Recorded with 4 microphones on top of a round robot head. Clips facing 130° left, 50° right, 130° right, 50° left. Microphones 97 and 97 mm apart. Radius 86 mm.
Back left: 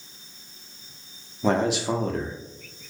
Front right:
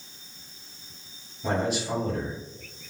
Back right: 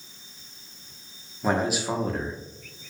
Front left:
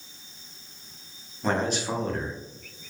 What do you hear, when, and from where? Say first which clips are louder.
1.4 s a man speaking: back left 5 dB, back right 2 dB; 145° left, 0.6 m